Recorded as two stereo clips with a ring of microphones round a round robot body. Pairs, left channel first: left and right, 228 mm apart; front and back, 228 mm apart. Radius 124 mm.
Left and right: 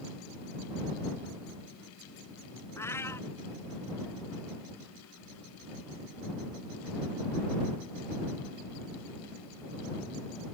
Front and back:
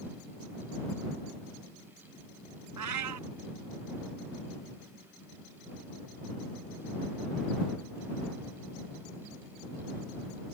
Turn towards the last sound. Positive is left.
turn(degrees=170)